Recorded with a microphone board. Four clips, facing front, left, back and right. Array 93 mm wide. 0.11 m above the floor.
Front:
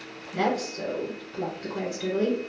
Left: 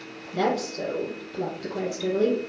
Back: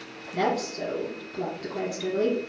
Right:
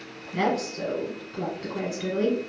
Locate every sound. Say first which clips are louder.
0.3 s a woman speaking: left 1 dB, even; 65° right, 1.7 m